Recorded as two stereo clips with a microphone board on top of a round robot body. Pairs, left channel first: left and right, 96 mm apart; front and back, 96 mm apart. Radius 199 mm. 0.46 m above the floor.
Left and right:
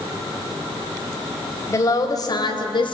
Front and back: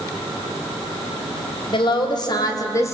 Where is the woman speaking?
30° left, 4 m; by 3.0 s 60° left, 3 m.